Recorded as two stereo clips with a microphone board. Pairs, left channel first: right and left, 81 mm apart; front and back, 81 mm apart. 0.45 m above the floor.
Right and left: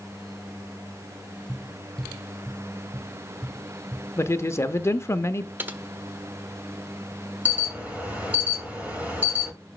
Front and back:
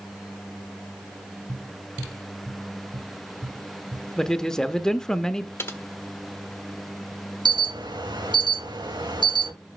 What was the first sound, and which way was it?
Tapping, 160° left.